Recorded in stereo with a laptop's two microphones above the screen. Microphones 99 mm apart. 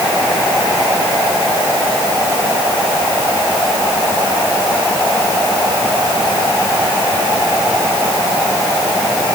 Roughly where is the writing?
No writing in this recording.